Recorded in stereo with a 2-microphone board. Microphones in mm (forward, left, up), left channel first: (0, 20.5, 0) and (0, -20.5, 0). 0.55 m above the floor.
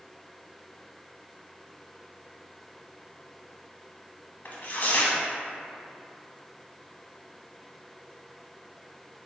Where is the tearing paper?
50° left (ahead or behind), 0.6 m.